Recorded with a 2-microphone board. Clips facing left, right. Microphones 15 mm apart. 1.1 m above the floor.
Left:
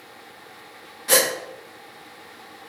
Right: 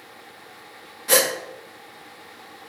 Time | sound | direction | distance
1.1 | a gasp | 15° left (ahead or behind) | 0.5 m